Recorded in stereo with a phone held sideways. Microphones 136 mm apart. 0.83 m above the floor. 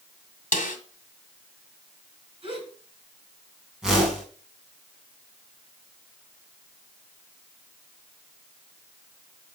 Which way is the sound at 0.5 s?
70° left (ahead or behind).